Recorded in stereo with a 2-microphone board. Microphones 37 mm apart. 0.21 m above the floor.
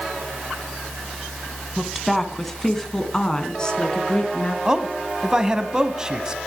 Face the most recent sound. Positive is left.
turn(degrees=-15)  # may be behind; listen again after turning